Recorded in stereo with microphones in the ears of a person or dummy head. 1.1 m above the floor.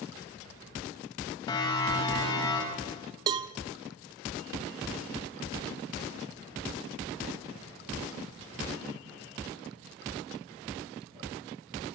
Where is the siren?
25° left (ahead or behind), 5.5 m; by 2.9 s 30° left (ahead or behind), 6.5 m.